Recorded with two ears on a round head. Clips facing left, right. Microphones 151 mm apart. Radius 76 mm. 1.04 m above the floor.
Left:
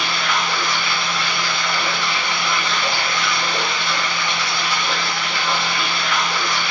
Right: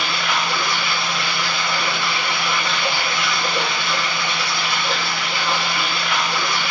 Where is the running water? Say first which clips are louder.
Even; 15° right (ahead or behind), 1.3 m.